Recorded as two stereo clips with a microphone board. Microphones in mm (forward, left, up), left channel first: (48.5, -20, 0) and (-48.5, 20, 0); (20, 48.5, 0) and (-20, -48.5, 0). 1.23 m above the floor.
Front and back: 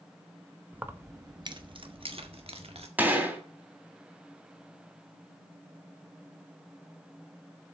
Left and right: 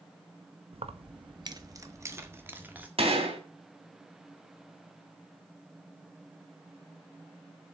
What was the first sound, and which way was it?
Keys jangling, 125° right.